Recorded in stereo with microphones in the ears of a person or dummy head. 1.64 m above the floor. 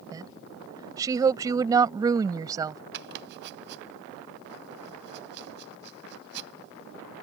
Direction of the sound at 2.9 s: 65° right (ahead or behind).